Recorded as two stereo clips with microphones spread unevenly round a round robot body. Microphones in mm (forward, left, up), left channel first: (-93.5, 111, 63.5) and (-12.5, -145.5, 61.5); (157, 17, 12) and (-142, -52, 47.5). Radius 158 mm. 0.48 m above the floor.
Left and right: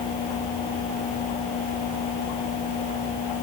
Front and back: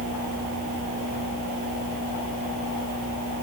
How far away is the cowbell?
No cowbell in this recording.